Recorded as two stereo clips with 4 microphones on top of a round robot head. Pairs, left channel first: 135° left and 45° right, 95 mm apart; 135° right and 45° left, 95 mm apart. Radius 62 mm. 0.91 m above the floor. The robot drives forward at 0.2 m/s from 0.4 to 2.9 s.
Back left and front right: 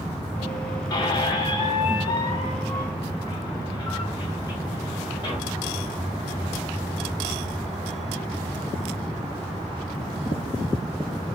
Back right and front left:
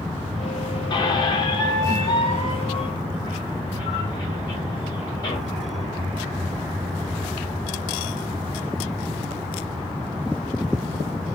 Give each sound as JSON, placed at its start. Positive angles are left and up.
{"t": 0.9, "sound": "a squeak", "azimuth_deg": 180, "distance_m": 0.6}